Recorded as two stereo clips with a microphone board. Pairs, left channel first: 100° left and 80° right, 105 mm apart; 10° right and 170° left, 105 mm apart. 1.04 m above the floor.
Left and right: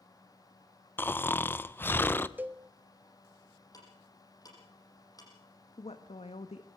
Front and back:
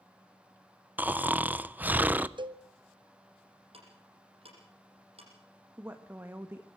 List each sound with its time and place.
1.0 s snoring: 120° left, 0.5 m
2.4 s a cowbell: 150° right, 0.9 m
3.7 s ticking: 155° left, 6.5 m
5.8 s a woman speaking: 100° left, 1.2 m